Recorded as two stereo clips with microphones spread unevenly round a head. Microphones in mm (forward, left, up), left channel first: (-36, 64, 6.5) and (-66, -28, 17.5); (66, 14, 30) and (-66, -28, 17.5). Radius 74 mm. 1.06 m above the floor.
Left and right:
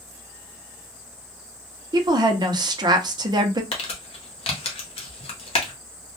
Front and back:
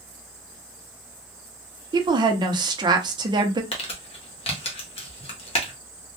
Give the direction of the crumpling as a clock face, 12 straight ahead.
10 o'clock.